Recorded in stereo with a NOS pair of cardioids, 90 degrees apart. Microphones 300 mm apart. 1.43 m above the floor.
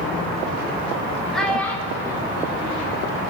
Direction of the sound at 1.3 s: Straight ahead.